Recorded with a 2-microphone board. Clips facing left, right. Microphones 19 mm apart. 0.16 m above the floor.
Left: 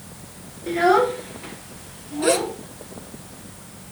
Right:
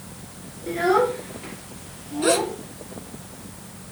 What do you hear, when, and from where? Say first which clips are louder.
0.7 s a child speaking: left 3 dB; 20° left (ahead or behind), 1.8 m; by 2.6 s 5° right (ahead or behind), 3.5 m
2.2 s a gasp: even; 5° right (ahead or behind), 2 m